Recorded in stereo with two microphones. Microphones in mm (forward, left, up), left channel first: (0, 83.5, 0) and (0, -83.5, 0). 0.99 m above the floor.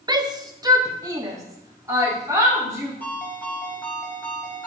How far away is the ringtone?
About 4 m.